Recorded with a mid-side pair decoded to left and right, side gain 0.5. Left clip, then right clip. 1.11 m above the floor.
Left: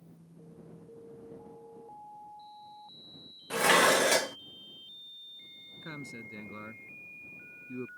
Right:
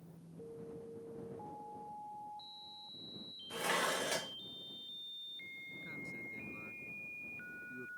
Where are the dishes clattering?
65° left.